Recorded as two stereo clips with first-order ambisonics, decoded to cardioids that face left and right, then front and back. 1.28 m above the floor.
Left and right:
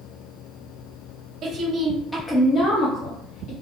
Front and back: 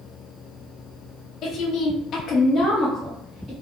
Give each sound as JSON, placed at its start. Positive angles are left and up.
{"t": 1.4, "sound": "a woman speaking", "azimuth_deg": -45, "distance_m": 0.7}